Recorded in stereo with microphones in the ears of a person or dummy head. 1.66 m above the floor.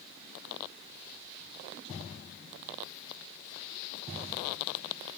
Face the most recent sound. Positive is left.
No sound to turn to.